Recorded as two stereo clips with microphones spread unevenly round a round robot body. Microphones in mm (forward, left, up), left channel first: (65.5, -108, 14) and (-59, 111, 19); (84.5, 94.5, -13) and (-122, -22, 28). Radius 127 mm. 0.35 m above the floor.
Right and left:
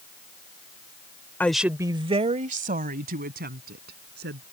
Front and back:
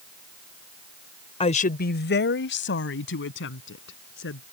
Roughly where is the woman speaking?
Ahead.